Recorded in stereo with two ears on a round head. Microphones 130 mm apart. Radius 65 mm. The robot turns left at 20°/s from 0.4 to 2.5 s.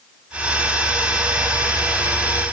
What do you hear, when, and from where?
Only background noise.